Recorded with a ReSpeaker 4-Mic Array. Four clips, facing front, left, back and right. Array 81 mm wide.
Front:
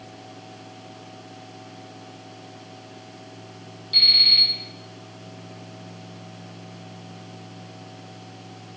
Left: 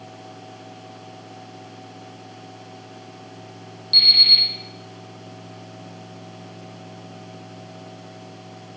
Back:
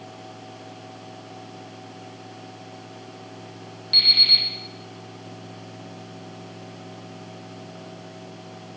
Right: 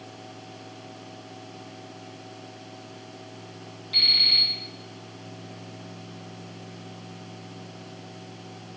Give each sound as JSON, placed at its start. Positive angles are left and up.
{"t": 3.9, "sound": "an alarm clock", "azimuth_deg": 160, "distance_m": 2.5}